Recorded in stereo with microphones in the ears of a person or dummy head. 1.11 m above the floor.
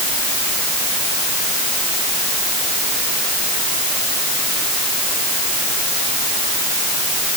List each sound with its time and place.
Only background noise.